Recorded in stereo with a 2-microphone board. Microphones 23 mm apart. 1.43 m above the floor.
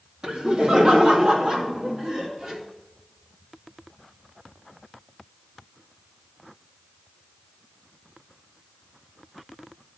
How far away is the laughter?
About 2.5 m.